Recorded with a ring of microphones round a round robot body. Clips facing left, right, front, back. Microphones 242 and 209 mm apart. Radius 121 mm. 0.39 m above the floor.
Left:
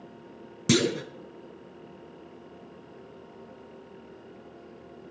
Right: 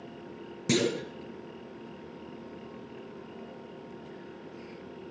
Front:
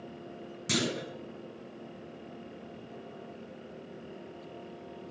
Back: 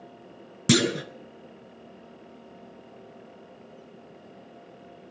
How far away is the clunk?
About 1.3 m.